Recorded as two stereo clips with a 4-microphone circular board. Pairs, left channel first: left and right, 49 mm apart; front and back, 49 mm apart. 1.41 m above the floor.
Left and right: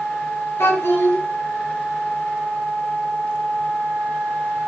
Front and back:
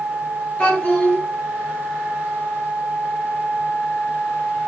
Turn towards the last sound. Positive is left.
turn(degrees=65)